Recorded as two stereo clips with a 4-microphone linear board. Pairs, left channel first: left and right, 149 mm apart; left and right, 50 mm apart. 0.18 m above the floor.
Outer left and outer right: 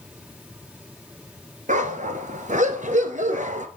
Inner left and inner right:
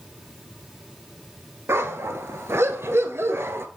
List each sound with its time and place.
1.7 s a dog barking: 55° right (ahead or behind), 1.0 m